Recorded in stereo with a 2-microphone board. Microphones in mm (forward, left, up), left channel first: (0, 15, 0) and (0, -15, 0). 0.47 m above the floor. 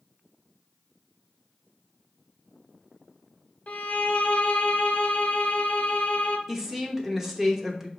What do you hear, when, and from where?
3.7 s a violin: 50° left (ahead or behind), 0.5 m
6.5 s a woman speaking: 15° right (ahead or behind), 0.8 m